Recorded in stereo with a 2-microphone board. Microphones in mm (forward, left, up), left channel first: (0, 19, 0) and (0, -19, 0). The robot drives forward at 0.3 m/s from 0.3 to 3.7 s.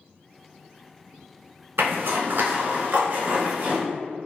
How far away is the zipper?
About 0.6 m.